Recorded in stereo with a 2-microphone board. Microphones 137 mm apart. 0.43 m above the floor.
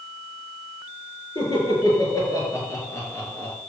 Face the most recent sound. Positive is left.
turn(degrees=15)  # may be behind; listen again after turning